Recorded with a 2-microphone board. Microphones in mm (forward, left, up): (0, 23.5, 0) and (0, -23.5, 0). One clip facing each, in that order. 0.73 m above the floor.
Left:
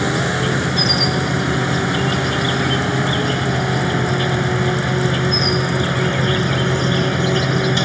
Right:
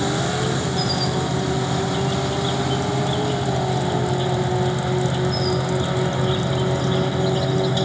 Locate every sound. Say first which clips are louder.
0.0 s an insect: left 3 dB; 70° left (ahead or behind)